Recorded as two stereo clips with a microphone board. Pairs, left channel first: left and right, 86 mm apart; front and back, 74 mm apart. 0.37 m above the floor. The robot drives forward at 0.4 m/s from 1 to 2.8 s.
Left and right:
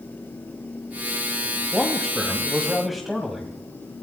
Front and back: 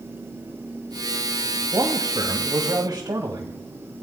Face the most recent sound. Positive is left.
turn(degrees=180)